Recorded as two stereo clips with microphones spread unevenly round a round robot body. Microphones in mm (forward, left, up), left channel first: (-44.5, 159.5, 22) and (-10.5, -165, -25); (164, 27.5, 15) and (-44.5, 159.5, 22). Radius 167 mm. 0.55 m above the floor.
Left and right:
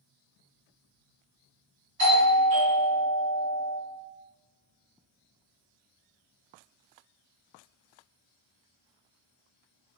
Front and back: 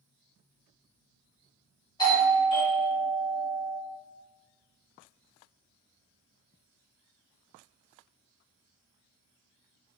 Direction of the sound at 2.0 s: 100° right.